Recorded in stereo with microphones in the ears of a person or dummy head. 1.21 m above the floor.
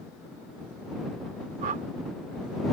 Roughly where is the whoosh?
Right.